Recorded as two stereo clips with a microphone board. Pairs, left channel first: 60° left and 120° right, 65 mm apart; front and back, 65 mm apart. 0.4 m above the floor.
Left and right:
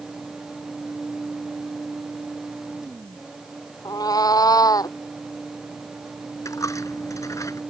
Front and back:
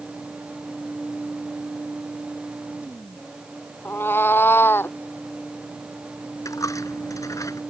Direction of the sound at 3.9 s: 55° left.